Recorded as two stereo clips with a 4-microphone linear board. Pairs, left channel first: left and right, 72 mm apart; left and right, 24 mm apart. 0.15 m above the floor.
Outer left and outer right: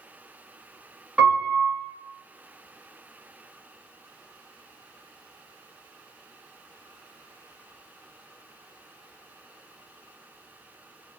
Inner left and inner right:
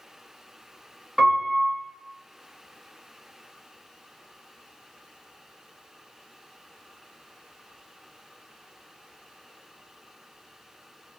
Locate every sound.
1.2 s a piano: 10° right (ahead or behind), 1.6 m